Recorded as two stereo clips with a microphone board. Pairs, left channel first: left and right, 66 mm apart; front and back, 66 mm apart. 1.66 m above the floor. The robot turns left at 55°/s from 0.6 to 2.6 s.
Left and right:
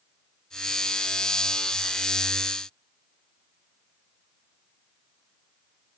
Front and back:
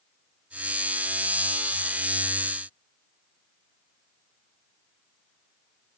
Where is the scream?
No scream in this recording.